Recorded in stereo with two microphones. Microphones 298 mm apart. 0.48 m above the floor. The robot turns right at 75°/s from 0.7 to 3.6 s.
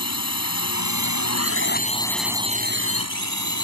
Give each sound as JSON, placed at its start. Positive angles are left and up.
{"t": 0.0, "sound": "a drone", "azimuth_deg": 65}